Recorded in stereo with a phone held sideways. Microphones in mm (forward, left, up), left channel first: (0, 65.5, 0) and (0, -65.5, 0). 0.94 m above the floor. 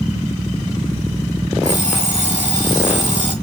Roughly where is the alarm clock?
Right.